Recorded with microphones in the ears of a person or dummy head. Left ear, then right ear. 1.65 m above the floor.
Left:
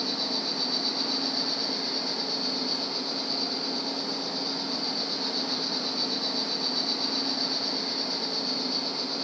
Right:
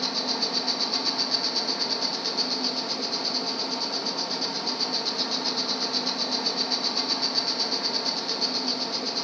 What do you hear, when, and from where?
0.0 s an insect: 50° right (ahead or behind), 1.4 m